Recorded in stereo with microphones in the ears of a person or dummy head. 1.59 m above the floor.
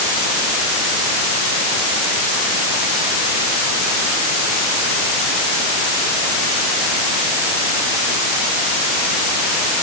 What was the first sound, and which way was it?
Only background noise.